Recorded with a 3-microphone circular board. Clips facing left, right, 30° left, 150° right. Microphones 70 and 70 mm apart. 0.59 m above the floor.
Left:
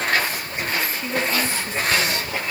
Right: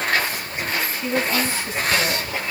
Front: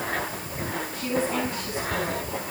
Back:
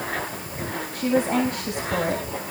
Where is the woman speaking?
Straight behind, 4 m; by 2.3 s 165° right, 4 m.